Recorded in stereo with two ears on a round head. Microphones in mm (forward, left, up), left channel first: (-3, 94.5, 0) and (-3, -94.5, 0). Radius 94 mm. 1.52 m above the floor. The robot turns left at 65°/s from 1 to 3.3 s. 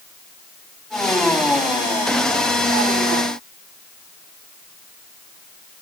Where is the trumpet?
I don't hear a trumpet.